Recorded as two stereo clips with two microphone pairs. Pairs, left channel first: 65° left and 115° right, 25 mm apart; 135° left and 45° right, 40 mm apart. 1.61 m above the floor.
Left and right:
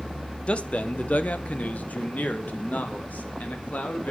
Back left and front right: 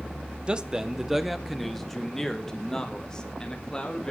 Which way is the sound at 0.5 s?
20° left.